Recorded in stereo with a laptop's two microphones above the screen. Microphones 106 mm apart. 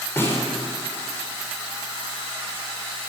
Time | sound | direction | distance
0.2 | a snare drum | 20° left (ahead or behind) | 3 m